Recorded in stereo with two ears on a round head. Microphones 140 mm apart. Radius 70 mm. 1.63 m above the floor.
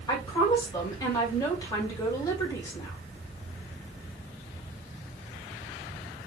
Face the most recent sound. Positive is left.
turn(degrees=25)  # may be behind; listen again after turning